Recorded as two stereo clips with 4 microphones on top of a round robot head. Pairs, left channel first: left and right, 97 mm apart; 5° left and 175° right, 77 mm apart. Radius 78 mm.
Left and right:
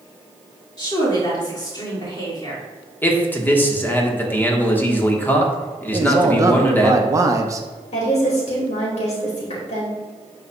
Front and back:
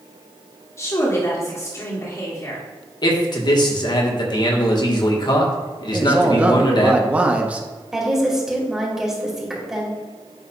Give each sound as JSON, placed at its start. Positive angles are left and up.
{"t": 0.8, "sound": "a woman speaking", "azimuth_deg": 50, "distance_m": 2.0}
{"t": 3.0, "sound": "a man speaking", "azimuth_deg": 20, "distance_m": 1.4}
{"t": 5.9, "sound": "a man speaking", "azimuth_deg": -115, "distance_m": 0.9}
{"t": 7.9, "sound": "a woman speaking", "azimuth_deg": 100, "distance_m": 2.5}